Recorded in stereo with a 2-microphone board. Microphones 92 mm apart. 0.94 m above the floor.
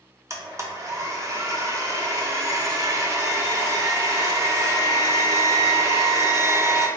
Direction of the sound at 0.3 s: 35° right (ahead or behind).